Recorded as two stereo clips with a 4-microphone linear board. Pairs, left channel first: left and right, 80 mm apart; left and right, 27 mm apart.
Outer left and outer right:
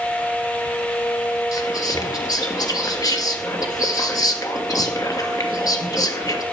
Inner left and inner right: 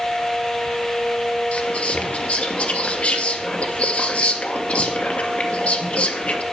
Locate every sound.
1.5 s whispering: 50° left (ahead or behind), 1.8 m